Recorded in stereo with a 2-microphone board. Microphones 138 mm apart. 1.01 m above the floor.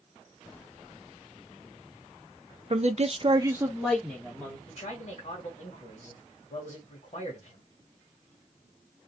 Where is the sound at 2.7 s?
50° right (ahead or behind), 0.6 m; by 4.6 s 10° left (ahead or behind), 1.4 m.